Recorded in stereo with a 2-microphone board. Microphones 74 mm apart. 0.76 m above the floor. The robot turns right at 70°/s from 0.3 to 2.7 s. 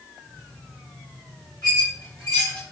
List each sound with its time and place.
1.6 s a squeak: 75° left (ahead or behind), 2 m; by 2.6 s 10° left (ahead or behind), 2 m